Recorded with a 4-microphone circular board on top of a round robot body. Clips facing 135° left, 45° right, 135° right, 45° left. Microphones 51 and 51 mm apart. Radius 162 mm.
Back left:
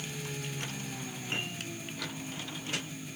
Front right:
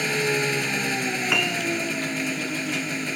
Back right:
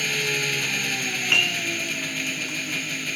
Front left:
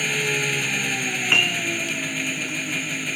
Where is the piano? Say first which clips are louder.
Front right 13 dB, front left 2 dB; 20° right.